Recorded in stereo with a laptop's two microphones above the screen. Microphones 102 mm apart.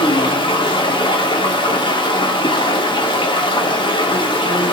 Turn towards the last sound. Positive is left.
turn(degrees=50)  # may be behind; listen again after turning